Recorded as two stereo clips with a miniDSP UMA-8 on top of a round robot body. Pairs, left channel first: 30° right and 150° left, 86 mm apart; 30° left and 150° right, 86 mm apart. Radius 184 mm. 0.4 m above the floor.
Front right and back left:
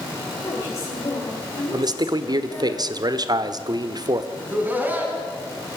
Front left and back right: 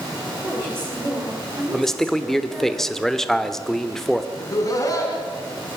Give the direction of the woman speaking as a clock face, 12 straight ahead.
3 o'clock.